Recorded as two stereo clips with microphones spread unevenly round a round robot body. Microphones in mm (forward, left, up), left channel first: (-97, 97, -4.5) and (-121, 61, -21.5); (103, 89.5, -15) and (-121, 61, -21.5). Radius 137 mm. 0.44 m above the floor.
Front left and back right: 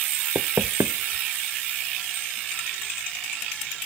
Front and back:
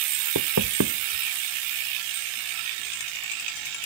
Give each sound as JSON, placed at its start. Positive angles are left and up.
{"t": 0.3, "sound": "knocking", "azimuth_deg": -130}